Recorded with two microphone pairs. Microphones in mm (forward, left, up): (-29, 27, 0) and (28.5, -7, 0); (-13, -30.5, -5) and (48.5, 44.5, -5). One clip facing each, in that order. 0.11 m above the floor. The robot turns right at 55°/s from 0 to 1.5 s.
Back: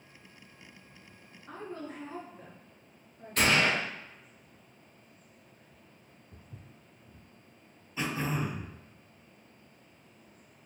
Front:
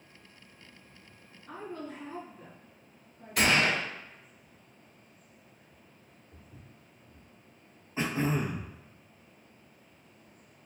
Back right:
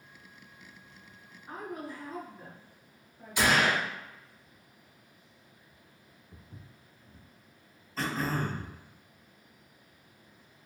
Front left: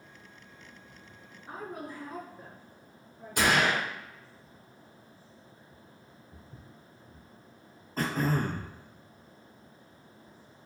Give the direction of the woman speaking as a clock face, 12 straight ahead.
8 o'clock.